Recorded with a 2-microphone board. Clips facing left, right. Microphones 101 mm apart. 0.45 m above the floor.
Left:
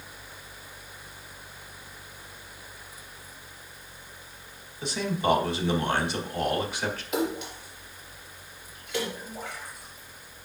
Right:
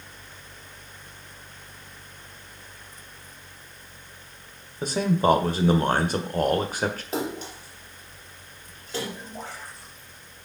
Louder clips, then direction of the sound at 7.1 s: Left 1 dB; 35° right (ahead or behind).